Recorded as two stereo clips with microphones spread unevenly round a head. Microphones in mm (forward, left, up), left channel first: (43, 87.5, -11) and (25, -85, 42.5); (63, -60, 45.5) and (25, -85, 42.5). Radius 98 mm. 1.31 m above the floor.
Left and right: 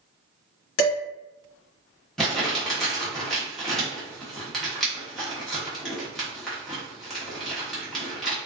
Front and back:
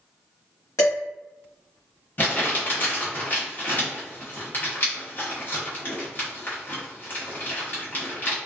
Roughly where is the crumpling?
Ahead.